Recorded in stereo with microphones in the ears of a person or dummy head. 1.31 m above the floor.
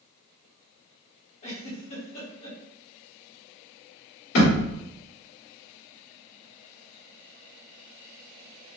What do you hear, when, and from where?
1.4 s a giggle: 35° left (ahead or behind), 1.1 m
4.3 s a thud: 60° left (ahead or behind), 1.9 m